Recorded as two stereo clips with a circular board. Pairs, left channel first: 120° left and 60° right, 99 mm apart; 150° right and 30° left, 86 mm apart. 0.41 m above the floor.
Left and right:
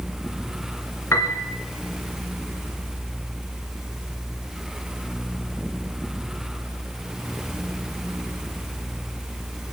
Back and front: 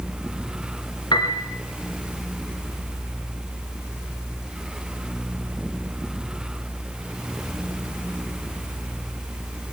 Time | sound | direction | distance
1.1 | a piano | straight behind | 1.5 m